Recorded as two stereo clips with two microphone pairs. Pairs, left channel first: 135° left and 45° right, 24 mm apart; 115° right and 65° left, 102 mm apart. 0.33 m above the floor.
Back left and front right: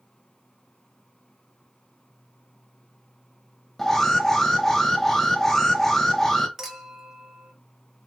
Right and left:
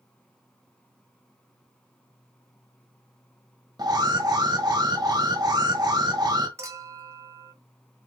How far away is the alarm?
About 1.2 m.